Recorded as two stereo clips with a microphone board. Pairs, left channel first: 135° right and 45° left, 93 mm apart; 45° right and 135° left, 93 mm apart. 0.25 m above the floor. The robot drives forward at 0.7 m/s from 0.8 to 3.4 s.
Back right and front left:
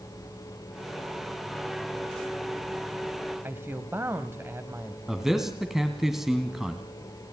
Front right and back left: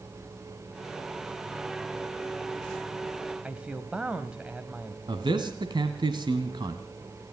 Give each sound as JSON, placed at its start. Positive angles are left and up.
{"t": 3.4, "sound": "a man speaking", "azimuth_deg": 70, "distance_m": 1.1}
{"t": 5.1, "sound": "a man speaking", "azimuth_deg": 130, "distance_m": 1.6}